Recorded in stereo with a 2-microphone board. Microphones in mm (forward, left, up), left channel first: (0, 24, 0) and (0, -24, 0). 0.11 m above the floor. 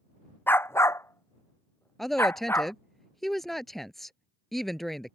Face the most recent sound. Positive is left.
turn(degrees=5)  # may be behind; listen again after turning